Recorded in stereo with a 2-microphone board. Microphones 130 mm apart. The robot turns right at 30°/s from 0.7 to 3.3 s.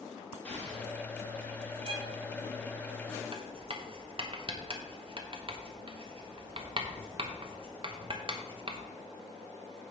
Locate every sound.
0.5 s an explosion: 10° left (ahead or behind), 2.0 m; by 0.9 s 5° left (ahead or behind), 2.0 m
1.8 s a violin: 45° right (ahead or behind), 1.4 m; by 2.2 s 35° right (ahead or behind), 1.4 m
3.3 s writing: 45° right (ahead or behind), 0.8 m